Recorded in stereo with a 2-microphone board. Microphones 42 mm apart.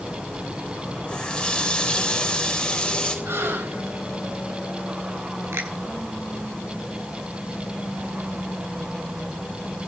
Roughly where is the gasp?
Right.